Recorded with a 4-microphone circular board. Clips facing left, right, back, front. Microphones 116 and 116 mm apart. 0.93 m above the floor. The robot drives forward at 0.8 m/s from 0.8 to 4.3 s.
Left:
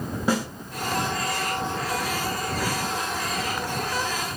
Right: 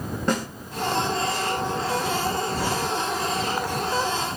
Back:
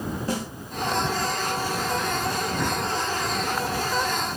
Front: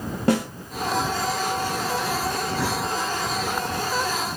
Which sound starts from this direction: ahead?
A snare drum, at 0.3 s.